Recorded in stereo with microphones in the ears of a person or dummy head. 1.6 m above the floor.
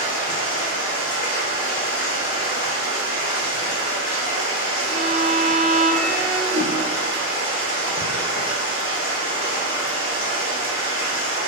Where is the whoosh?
60° right (ahead or behind), 1.9 m.